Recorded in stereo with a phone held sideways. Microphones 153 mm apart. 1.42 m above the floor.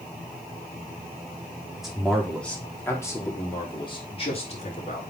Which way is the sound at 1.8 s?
5° right (ahead or behind).